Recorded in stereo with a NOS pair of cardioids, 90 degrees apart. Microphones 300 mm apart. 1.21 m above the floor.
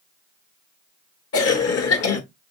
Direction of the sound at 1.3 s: 55° left.